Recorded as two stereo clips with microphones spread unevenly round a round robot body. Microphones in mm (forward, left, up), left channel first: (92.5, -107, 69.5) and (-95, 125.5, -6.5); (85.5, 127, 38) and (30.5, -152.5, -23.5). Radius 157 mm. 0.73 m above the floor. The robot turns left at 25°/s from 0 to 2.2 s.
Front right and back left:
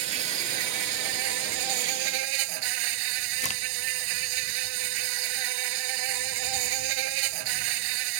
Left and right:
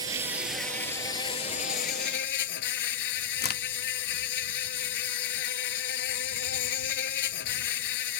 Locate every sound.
0.0 s an insect: 175° left; by 8.2 s 120° left
3.4 s a crack: 25° left